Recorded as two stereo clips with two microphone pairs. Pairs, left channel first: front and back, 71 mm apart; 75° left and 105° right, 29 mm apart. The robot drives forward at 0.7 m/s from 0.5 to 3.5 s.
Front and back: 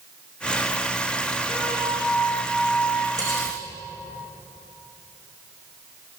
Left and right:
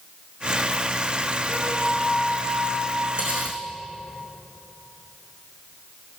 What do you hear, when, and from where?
1.5 s a flute: 60° right, 4 m; by 3.1 s 75° right, 4 m
3.2 s cutlery clinking: 145° right, 4 m